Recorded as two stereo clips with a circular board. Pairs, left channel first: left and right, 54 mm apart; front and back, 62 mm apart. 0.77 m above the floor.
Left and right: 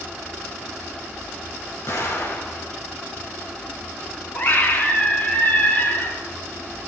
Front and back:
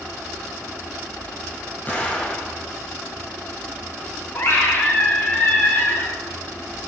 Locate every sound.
1.9 s an explosion: 60° left, 3.5 m
4.3 s a scream: 40° left, 3.5 m